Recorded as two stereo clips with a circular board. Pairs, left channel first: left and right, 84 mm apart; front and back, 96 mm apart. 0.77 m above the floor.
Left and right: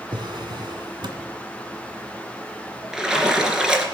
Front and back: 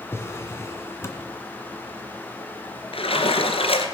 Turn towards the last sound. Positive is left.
turn(degrees=-10)